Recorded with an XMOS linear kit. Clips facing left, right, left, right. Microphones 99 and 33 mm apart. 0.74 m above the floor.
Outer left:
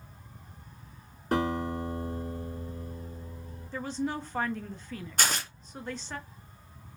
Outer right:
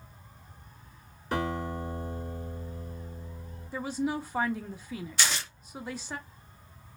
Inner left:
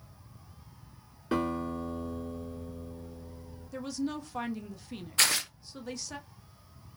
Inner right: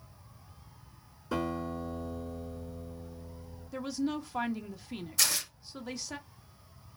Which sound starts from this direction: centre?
A woman speaking, at 3.7 s.